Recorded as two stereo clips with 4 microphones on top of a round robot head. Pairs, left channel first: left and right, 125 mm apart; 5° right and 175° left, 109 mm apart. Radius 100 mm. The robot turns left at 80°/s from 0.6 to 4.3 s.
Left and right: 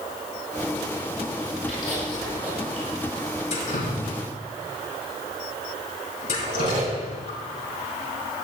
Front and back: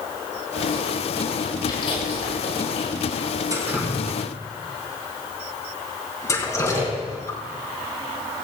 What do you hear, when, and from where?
1.7 s chewing: 45° left, 7 m; by 2.9 s 50° right, 7 m
3.5 s dripping: 125° left, 5 m; by 7.4 s 60° left, 5 m
6.4 s a squeak: 115° right, 3 m